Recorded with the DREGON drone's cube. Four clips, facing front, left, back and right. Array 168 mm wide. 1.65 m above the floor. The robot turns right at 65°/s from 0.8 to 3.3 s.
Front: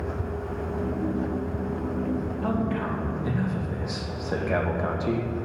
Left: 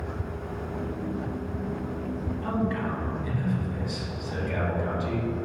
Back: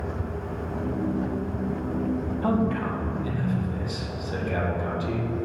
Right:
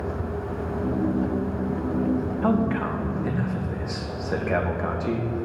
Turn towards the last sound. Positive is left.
turn(degrees=-50)